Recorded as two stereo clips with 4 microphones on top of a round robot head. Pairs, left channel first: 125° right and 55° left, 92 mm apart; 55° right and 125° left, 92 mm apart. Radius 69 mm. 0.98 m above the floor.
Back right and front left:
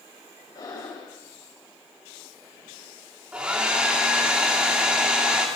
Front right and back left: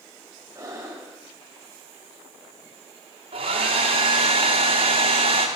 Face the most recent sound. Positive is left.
turn(degrees=135)